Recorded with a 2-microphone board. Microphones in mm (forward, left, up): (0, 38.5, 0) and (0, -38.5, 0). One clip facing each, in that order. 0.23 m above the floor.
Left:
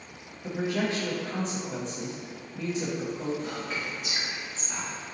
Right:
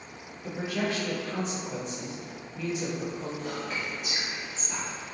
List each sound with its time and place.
0.4 s a man speaking: 30° left (ahead or behind), 1.0 m
3.4 s whispering: centre (ahead or behind), 1.4 m